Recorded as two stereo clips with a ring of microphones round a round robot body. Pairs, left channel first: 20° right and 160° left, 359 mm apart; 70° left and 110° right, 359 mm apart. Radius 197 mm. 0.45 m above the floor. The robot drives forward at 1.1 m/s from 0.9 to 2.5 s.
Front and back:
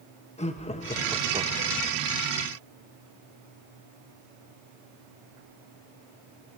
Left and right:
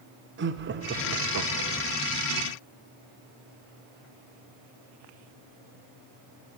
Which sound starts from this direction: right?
Laughter, at 0.4 s.